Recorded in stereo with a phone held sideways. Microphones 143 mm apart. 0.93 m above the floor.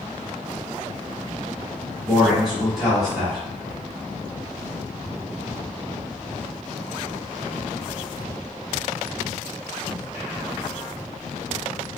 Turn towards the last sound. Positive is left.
turn(degrees=0)  # may be behind; listen again after turning